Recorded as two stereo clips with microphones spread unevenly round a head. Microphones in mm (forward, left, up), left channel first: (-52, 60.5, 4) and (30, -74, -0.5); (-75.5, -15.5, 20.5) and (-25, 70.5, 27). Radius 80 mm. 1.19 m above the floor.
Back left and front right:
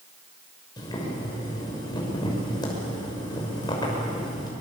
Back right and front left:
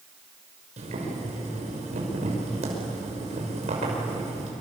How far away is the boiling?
About 6 m.